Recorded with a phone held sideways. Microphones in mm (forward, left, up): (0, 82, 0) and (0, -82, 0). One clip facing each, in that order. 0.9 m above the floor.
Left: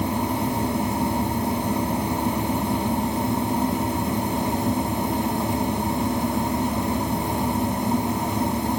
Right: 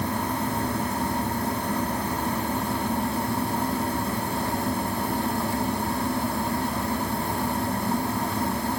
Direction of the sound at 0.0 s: 20° left (ahead or behind).